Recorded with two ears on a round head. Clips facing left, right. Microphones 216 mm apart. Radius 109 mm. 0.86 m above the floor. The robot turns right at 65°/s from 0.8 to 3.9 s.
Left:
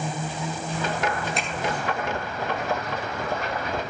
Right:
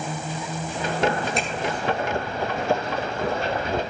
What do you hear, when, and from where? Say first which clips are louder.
1.4 s a finger snap: right 3 dB; centre (ahead or behind), 8.5 m; by 1.5 s 10° right (ahead or behind), 8.5 m